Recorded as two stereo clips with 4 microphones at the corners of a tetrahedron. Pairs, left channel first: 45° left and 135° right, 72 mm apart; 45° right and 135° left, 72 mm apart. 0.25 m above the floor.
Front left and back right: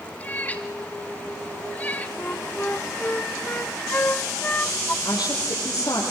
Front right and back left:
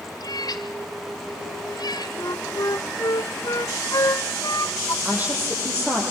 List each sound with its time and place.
0.2 s a cat meowing: 20° right, 2.5 m
2.2 s a flute: 20° right, 0.7 m
5.0 s a woman speaking: 70° left, 8 m